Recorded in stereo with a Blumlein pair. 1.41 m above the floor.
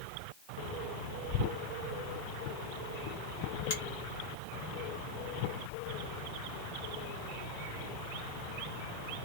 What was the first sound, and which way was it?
A finger snap, 60° left.